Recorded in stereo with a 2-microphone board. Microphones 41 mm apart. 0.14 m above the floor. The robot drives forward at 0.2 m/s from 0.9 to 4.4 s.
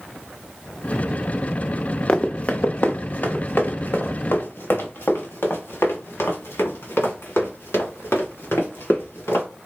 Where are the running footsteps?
25° left (ahead or behind), 0.8 m; by 9.5 s 75° left (ahead or behind), 5.5 m.